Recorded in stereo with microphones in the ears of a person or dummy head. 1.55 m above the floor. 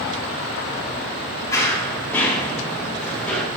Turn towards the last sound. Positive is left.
turn(degrees=5)  # may be behind; listen again after turning